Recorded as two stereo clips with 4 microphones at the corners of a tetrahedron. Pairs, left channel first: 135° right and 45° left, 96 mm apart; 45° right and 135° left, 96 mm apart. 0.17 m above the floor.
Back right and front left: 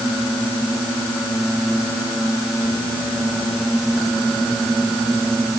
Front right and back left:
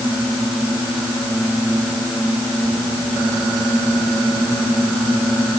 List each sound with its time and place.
Only background noise.